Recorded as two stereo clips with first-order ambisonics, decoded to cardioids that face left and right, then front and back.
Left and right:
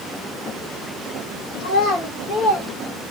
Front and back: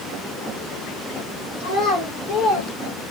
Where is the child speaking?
40° left, 1.2 m; by 2.7 s 35° left, 1.9 m.